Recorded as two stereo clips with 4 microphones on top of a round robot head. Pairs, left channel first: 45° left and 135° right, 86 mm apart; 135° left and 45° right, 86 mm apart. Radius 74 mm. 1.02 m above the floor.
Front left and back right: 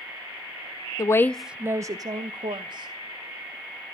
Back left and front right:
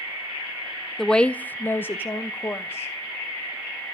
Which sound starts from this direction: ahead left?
A woman speaking, at 1.0 s.